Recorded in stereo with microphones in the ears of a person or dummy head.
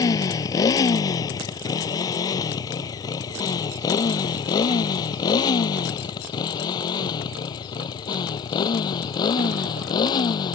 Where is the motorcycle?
20° left (ahead or behind); by 10.5 s 25° left (ahead or behind).